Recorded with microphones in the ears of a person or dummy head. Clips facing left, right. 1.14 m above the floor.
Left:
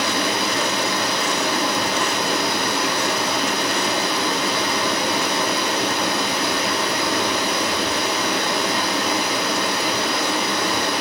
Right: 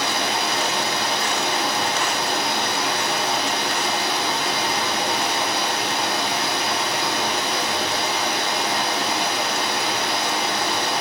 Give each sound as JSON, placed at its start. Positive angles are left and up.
{"t": 0.0, "sound": "running water", "side_deg": 60, "distance_m": 1.2}